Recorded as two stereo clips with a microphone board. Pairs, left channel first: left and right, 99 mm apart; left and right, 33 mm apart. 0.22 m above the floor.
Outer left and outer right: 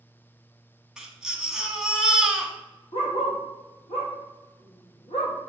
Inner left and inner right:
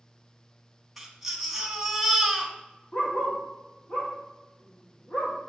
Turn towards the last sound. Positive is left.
turn(degrees=70)  # may be behind; listen again after turning